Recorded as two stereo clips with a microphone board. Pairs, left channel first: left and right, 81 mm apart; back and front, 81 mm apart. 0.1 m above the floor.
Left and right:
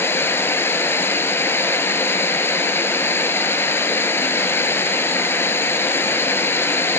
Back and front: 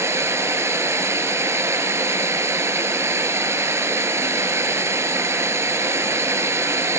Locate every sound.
0.0 s running water: 40° left, 0.9 m